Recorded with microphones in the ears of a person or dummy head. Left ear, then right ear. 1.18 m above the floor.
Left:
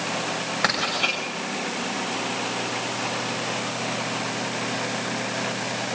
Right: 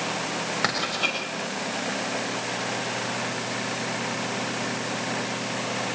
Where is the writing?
5° left (ahead or behind), 6.5 m.